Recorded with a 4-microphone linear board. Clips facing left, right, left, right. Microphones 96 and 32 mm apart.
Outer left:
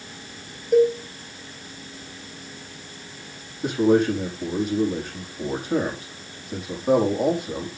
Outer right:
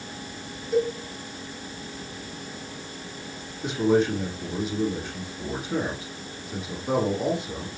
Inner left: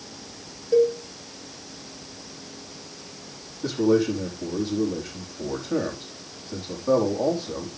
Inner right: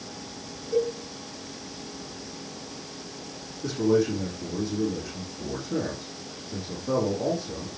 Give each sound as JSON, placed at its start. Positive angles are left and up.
{"t": 0.7, "sound": "a cowbell", "side_deg": 60, "distance_m": 5.0}
{"t": 3.6, "sound": "a man speaking", "side_deg": 50, "distance_m": 4.5}